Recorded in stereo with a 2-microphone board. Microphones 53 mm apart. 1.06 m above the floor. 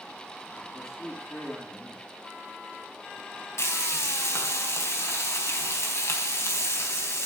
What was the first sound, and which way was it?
A man speaking, 50° left (ahead or behind).